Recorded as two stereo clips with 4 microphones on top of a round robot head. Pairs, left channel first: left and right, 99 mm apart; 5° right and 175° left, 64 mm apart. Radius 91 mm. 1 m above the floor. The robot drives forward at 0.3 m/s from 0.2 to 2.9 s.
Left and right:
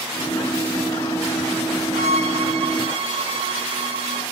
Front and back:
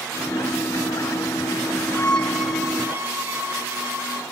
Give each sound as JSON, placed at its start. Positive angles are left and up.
{"t": 1.9, "sound": "a violin", "azimuth_deg": -80, "distance_m": 0.9}